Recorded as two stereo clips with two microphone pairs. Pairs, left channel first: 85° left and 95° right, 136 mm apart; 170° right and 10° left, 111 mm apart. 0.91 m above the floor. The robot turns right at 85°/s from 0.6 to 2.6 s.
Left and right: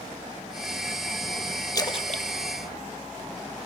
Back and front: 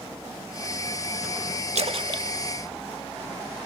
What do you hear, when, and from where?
1.8 s a splash: 25° left, 0.7 m; by 2.3 s 70° left, 0.7 m